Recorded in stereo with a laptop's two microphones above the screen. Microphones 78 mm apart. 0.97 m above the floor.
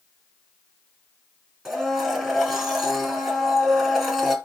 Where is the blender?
5° right (ahead or behind), 4.5 m.